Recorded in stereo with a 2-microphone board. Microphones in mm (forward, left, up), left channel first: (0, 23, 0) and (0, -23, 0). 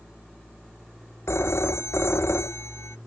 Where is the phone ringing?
75° left (ahead or behind).